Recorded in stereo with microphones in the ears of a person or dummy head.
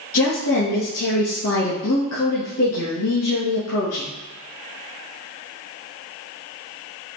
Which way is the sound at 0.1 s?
80° left.